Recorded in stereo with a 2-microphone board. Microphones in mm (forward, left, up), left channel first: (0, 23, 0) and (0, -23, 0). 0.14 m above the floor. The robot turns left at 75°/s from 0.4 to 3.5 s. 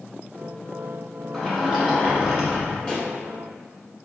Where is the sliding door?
5° left (ahead or behind), 1.1 m; by 2.8 s 25° right (ahead or behind), 1.1 m.